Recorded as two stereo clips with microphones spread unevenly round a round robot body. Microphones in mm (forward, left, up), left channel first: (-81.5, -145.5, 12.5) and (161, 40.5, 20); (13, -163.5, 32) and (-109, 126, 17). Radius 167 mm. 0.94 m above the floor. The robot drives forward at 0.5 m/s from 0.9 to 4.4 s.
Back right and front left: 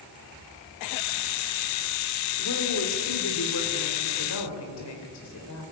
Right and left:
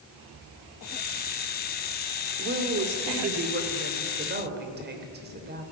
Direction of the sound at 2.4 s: 170° left.